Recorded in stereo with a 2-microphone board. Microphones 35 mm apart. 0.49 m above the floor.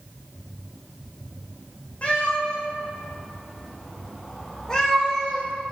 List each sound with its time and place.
2.0 s a cat meowing: 40° left (ahead or behind), 5.5 m; by 5.5 s 15° left (ahead or behind), 7 m